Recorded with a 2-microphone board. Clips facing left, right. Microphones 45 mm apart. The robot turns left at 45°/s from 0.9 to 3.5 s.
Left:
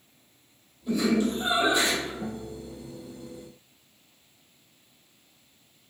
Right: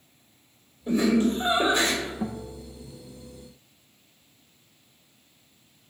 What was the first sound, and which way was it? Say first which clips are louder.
Laughter: right 3 dB; 60° right.